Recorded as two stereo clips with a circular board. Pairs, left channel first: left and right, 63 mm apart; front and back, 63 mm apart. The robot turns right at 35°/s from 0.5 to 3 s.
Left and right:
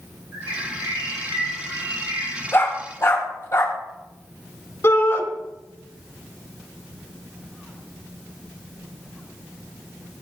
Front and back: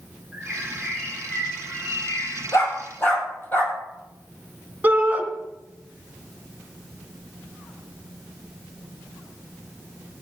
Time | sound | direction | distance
0.3 | a bird | 110° right | 8 m
2.5 | a dog barking | 40° left | 4.5 m
4.8 | a shout | 125° left | 2.5 m